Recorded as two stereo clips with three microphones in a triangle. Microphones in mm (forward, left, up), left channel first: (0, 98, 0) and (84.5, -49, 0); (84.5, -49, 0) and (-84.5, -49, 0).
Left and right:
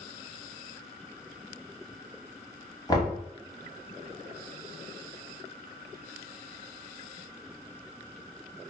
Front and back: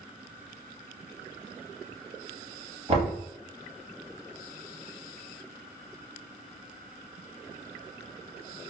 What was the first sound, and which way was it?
Knocking, 165° left.